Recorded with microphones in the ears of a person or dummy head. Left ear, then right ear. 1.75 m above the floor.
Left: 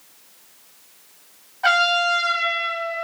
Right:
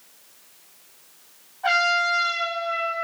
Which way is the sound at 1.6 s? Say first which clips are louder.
Left 3 dB; 60° left (ahead or behind).